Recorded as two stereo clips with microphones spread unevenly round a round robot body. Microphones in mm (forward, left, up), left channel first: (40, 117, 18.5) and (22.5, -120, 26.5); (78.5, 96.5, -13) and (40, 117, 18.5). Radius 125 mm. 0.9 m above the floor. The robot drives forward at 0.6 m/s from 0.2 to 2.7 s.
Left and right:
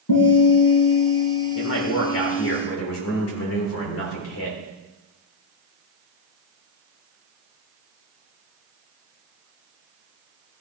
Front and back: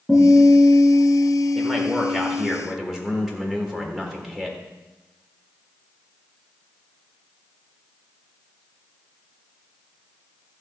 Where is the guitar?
70° left, 6.5 m; by 2.5 s 85° left, 6.5 m.